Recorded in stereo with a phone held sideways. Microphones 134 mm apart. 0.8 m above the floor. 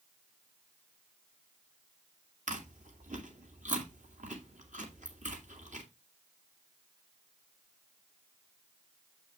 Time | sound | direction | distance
2.5 | chewing | 65° right (ahead or behind) | 2 m